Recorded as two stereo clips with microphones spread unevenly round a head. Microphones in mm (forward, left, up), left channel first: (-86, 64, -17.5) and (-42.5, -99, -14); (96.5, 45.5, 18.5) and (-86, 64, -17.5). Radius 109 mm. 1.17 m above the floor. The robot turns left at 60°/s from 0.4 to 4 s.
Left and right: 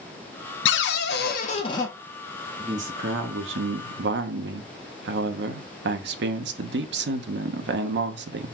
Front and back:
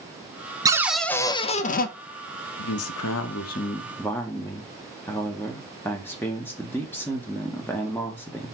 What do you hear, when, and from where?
0.7 s a cupboard door: 100° left, 0.6 m; by 1.9 s 25° left, 0.6 m
2.6 s a man speaking: 5° right, 0.7 m; by 8.5 s 90° right, 0.7 m